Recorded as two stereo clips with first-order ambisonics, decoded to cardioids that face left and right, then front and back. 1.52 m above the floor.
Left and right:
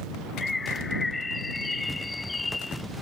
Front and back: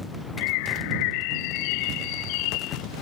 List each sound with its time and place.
0.4 s a bird: 10° left